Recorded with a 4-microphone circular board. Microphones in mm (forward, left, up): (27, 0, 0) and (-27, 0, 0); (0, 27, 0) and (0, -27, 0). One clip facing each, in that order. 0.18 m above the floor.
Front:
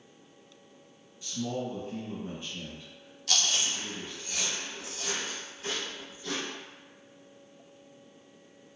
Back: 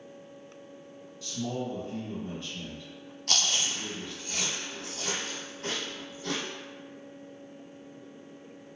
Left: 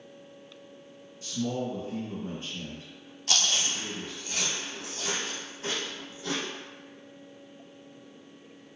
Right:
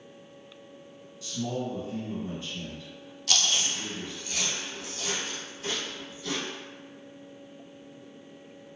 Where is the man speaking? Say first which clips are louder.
Even, left 1 dB; 65° left, 1.5 m.